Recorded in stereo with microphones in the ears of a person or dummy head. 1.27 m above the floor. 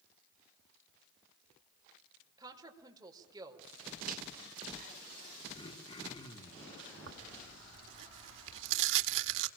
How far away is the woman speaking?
About 4.5 m.